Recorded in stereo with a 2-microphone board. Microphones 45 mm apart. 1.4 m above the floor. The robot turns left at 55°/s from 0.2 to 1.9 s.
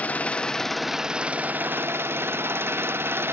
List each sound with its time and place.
0.0 s an engine running: 35° left, 0.9 m; by 3.3 s 60° right, 0.9 m